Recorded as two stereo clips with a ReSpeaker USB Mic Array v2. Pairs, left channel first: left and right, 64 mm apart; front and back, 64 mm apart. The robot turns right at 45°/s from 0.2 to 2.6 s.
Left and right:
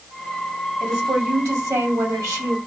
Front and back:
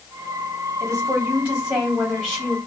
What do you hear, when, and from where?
0.8 s a woman speaking: 140° right, 2.5 m; by 2.6 s 60° right, 2.5 m